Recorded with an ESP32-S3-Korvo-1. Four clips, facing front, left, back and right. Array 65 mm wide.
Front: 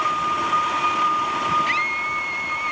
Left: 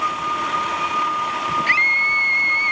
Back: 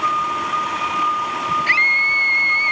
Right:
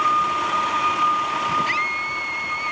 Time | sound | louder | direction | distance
1.7 | a scream | left 6 dB, back 6 dB | 145° left | ?